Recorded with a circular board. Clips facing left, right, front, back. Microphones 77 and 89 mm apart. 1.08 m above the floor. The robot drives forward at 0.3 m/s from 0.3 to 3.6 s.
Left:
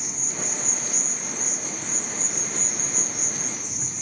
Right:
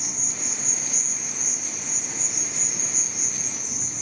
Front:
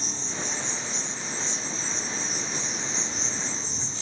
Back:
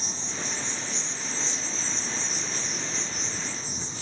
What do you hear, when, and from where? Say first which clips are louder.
0.0 s an insect: left 3 dB, front 1 dB; 50° left, 1.8 m; by 4.0 s 105° left, 1.6 m